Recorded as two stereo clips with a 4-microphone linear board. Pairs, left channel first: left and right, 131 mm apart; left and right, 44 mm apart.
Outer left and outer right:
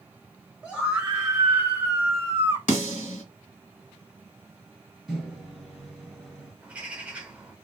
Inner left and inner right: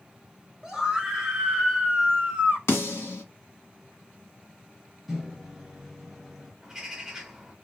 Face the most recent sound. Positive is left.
turn(degrees=-10)  # may be behind; listen again after turning